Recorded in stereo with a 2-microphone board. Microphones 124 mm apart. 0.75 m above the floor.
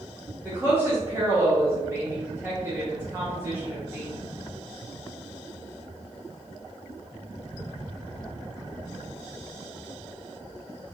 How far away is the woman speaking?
About 0.8 m.